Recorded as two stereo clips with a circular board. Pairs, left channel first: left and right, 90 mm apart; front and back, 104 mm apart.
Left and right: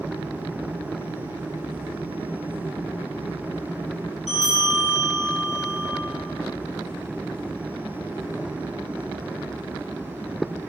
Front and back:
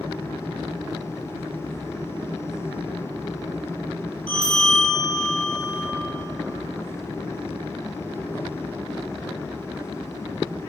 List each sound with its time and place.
4.3 s a bell: straight behind, 1.4 m